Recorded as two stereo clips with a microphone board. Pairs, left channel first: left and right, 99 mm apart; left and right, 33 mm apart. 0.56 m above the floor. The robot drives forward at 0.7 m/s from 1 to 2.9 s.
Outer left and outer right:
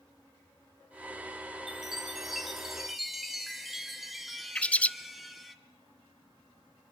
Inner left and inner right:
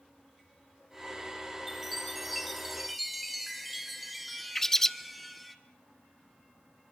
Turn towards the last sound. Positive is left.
turn(degrees=15)  # may be behind; listen again after turning